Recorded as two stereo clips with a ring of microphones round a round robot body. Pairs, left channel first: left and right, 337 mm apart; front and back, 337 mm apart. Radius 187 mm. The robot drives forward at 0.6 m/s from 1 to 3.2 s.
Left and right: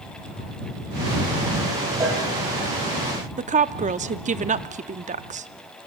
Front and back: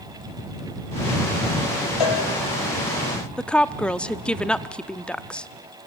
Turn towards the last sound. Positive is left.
turn(degrees=-80)